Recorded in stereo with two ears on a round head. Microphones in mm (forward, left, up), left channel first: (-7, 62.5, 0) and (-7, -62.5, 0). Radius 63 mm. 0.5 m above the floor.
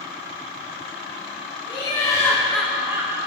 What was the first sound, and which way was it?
Laughter, 35° left (ahead or behind).